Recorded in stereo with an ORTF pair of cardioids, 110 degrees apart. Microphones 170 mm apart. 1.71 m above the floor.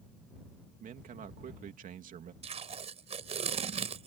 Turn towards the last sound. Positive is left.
turn(degrees=-40)